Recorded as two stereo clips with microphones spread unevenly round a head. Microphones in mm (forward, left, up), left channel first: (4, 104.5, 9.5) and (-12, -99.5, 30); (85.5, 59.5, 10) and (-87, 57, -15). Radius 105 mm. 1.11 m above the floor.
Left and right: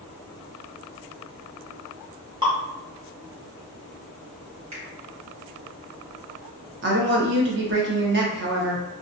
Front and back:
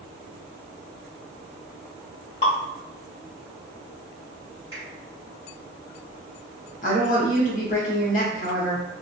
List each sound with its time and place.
2.4 s dripping: 35° right, 1.0 m
4.7 s a finger snap: 100° right, 1.4 m
6.8 s a woman speaking: 55° right, 0.8 m